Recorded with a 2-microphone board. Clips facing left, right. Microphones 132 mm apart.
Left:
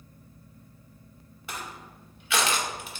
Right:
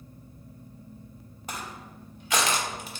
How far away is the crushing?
About 0.5 m.